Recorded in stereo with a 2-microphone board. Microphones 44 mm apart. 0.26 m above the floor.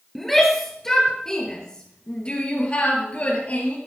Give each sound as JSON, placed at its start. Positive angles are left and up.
{"t": 0.1, "sound": "a shout", "side_deg": 0, "distance_m": 5.5}